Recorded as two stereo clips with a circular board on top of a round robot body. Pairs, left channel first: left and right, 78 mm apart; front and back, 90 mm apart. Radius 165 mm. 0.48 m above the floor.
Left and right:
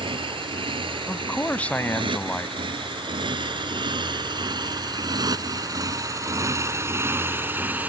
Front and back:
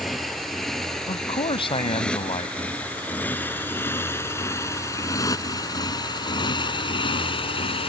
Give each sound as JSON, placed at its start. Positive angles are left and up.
{"t": 0.0, "sound": "a motorcycle", "azimuth_deg": -90}
{"t": 1.1, "sound": "a man speaking", "azimuth_deg": 15}